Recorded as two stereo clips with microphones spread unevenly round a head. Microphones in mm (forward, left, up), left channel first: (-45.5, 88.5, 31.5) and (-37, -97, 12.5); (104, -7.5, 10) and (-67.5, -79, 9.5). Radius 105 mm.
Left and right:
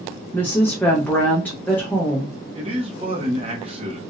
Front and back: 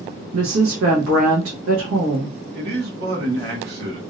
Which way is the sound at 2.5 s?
140° right.